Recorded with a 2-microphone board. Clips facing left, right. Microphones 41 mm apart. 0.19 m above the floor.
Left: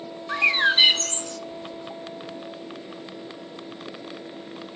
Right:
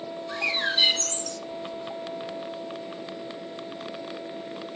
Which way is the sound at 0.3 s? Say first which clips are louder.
Left 7 dB; 35° left (ahead or behind).